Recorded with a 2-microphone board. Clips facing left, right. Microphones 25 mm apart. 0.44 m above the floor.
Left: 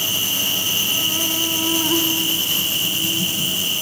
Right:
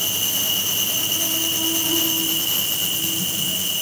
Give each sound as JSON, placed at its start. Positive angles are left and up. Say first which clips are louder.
{"t": 0.0, "sound": "an insect", "louder": "left 3 dB", "side_deg": 45, "distance_m": 1.3}